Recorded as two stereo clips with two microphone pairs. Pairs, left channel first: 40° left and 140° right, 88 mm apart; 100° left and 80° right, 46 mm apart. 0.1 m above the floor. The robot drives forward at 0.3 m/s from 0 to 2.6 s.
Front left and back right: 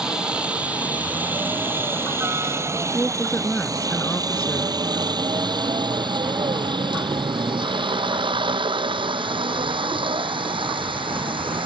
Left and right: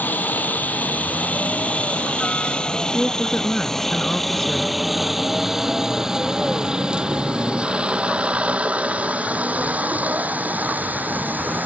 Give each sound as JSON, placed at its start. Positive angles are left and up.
{"t": 0.0, "sound": "a helicopter", "azimuth_deg": 140}
{"t": 2.9, "sound": "a woman speaking", "azimuth_deg": 75}